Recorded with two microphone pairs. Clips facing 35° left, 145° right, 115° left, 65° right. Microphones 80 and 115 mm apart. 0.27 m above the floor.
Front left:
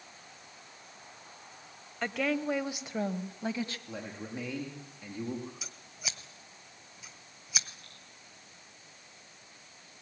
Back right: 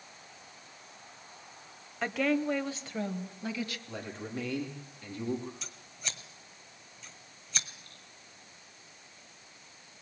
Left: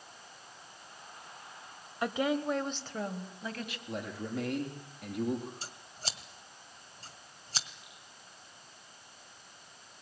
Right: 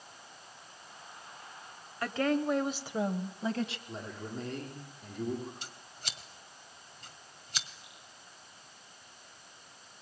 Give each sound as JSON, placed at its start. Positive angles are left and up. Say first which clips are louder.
{"t": 2.0, "sound": "a woman speaking", "louder": "back right 2 dB, right 1 dB", "azimuth_deg": 140, "distance_m": 1.1}
{"t": 3.9, "sound": "a man speaking", "louder": "back right 1 dB, left 4 dB", "azimuth_deg": 115, "distance_m": 8.0}
{"t": 5.6, "sound": "scissors", "louder": "even, left 3 dB", "azimuth_deg": 115, "distance_m": 1.9}
{"t": 7.8, "sound": "dripping", "louder": "even, even", "azimuth_deg": 40, "distance_m": 6.5}